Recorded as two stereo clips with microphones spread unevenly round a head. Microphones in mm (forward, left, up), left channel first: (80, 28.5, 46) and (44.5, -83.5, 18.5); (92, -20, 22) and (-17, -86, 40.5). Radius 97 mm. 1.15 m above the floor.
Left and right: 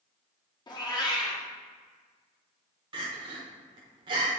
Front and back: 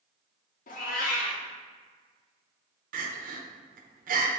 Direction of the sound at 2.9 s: 150° right.